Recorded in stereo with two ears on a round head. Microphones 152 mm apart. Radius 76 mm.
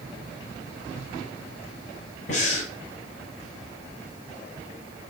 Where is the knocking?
No knocking in this recording.